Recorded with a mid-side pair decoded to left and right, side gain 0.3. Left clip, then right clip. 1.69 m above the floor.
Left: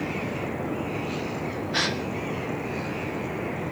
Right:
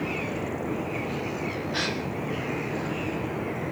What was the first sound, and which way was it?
A gasp, 50° left.